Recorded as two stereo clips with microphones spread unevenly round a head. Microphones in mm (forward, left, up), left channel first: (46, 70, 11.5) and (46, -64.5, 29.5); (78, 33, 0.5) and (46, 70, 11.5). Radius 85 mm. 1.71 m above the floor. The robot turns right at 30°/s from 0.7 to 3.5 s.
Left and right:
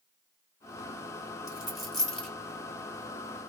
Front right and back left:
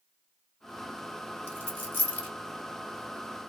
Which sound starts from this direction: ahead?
A dropped coin, at 1.5 s.